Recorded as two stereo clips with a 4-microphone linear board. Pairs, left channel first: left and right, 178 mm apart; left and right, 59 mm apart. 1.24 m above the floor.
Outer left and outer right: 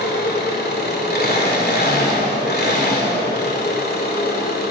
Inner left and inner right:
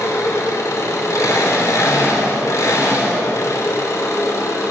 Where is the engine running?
65° left (ahead or behind), 2.5 m.